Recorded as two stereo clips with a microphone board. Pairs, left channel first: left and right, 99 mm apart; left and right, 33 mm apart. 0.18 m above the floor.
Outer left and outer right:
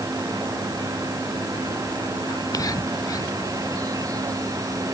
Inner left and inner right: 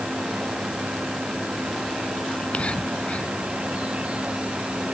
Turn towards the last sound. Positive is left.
turn(degrees=40)  # may be behind; listen again after turning